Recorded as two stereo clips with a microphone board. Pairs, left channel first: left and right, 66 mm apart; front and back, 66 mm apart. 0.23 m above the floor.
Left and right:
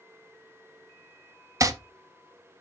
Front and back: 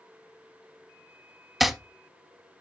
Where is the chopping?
90° right, 0.8 m.